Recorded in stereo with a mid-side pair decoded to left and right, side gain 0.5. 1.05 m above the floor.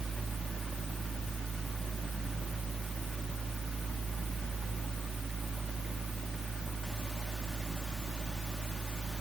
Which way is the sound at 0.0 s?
Straight ahead.